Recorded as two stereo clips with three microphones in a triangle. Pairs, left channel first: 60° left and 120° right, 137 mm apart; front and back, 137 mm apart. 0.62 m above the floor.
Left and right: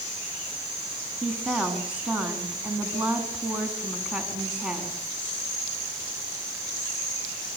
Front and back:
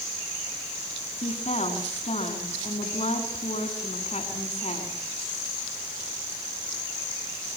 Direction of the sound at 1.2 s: 35° right.